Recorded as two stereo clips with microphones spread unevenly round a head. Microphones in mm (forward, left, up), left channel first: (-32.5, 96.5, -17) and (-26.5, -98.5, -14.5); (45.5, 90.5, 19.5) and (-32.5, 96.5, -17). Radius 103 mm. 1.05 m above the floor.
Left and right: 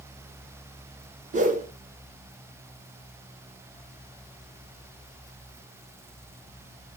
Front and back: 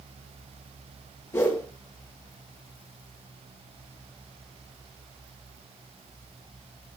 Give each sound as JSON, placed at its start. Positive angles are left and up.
{"t": 1.3, "sound": "a whoosh", "azimuth_deg": -40, "distance_m": 1.1}